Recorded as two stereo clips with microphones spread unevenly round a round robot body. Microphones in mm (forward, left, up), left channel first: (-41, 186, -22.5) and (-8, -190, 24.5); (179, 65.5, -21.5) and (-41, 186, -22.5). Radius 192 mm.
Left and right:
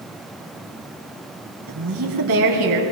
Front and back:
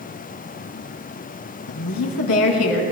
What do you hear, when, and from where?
1.7 s a woman speaking: 25° right, 2.5 m